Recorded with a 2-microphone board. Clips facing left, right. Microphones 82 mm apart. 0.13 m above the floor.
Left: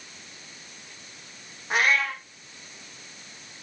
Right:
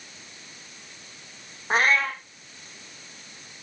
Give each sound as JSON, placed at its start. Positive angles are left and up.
{"t": 1.7, "sound": "a cat meowing", "side_deg": -35, "distance_m": 3.0}